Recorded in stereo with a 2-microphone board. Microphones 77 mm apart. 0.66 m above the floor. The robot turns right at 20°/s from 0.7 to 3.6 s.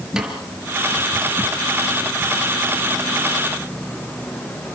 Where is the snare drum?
10° right (ahead or behind), 5 m.